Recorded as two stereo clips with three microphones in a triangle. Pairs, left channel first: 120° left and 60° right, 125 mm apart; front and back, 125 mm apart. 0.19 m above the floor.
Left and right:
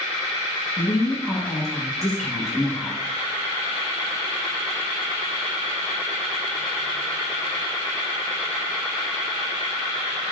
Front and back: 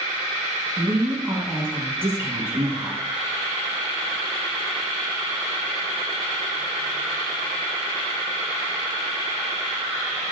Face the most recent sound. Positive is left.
turn(degrees=-160)